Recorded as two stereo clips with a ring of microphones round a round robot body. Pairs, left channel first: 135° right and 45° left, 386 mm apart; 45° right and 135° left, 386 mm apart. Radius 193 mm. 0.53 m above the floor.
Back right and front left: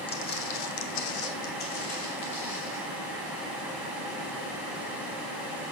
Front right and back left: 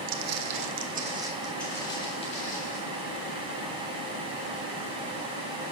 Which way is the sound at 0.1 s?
150° left.